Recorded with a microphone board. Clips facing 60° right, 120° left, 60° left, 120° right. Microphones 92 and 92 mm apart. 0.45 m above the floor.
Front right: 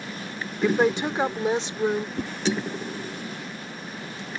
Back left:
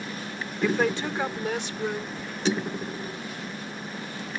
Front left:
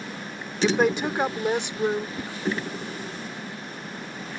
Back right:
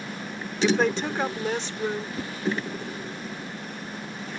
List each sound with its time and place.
0.6 s a woman speaking: 10° right; by 2.1 s 5° right
2.2 s a whoosh: 35° right